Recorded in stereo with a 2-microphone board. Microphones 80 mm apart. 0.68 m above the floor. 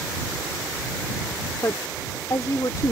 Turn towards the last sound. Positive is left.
turn(degrees=45)  # may be behind; listen again after turning